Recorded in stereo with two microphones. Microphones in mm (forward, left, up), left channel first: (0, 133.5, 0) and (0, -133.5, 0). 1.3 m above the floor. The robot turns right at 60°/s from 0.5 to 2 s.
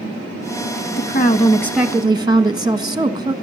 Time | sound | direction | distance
1.0 | a woman speaking | 135° left | 1.3 m